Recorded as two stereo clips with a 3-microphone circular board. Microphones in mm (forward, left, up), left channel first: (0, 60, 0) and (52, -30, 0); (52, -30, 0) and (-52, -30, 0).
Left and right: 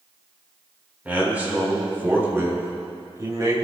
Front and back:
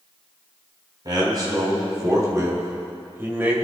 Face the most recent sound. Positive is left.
turn(degrees=-110)